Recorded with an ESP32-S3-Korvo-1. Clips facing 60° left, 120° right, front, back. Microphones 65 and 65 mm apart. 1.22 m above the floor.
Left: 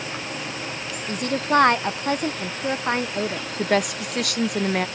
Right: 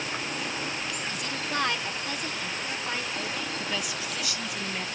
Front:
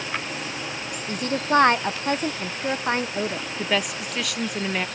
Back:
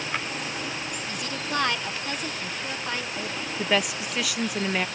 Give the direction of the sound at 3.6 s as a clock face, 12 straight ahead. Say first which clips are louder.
Left 10 dB, back 1 dB; 9 o'clock.